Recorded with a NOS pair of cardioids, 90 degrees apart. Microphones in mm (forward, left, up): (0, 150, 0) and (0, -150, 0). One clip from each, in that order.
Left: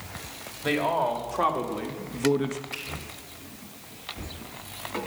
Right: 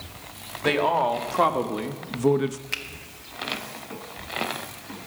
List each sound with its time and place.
0.6 s a man speaking: 30° right, 2 m; by 2.6 s 15° right, 0.9 m
2.7 s a finger snap: 60° right, 1.6 m